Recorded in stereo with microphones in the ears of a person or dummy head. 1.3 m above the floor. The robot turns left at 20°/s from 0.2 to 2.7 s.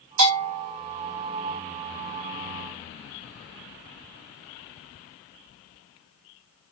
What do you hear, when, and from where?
0.2 s a bell: 75° right (ahead or behind), 1.9 m; by 0.7 s 65° right (ahead or behind), 1.9 m